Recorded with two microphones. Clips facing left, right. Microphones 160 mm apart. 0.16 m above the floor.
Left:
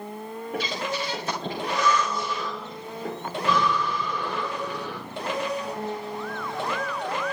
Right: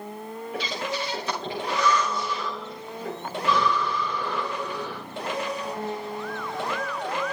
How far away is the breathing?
About 8 m.